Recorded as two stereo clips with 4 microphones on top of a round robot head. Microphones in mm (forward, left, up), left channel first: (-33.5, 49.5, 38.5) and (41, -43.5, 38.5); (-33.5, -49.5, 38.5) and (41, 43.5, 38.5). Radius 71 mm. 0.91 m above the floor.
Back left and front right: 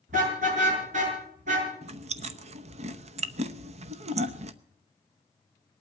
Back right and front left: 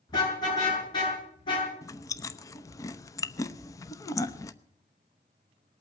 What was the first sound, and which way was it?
A car horn, 75° right.